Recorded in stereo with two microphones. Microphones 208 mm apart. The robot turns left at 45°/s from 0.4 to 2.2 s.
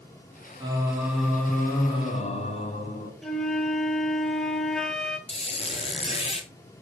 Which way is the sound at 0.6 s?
150° right.